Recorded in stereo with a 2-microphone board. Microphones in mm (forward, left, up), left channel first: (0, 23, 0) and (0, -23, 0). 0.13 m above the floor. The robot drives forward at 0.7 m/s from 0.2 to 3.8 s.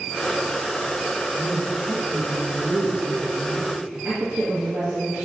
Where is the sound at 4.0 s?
45° right (ahead or behind), 4 m.